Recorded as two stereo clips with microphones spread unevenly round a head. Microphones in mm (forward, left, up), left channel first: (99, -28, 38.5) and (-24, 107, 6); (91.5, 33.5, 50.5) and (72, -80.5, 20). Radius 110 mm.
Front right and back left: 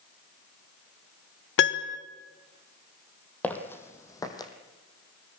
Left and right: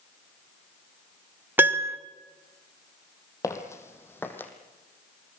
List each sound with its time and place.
1.6 s a piano: 35° right, 1.4 m
3.4 s footsteps: 30° left, 2.5 m; by 4.5 s 15° left, 3 m